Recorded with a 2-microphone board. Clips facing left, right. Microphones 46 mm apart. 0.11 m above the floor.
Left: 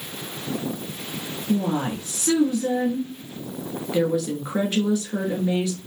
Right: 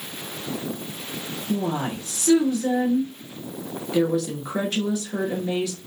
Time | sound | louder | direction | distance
1.5 | a woman speaking | left 2 dB | 10° left (ahead or behind) | 1.3 m